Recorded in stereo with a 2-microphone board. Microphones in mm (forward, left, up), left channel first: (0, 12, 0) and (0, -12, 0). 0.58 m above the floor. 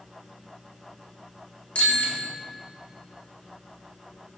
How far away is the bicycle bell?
About 5.5 m.